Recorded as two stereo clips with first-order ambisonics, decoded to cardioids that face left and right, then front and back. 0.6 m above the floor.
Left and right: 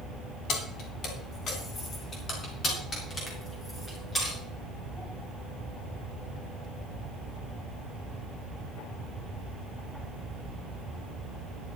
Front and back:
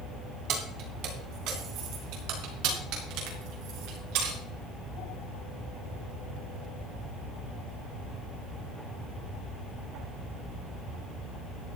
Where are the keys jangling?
140° left, 3 m; by 4.4 s 165° left, 5.5 m.